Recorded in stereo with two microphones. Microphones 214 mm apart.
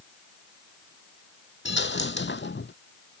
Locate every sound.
1.6 s a dropped coin: 60° left (ahead or behind)